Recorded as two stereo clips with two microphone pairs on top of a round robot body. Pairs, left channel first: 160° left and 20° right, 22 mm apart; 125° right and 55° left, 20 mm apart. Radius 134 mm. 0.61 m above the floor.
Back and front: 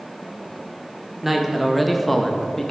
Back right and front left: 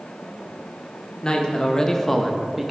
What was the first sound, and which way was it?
A man speaking, 80° right.